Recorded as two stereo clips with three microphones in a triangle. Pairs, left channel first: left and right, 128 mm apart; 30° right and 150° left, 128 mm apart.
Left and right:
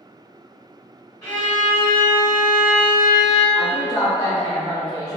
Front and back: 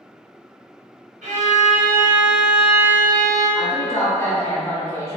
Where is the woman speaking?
35° left, 0.8 m.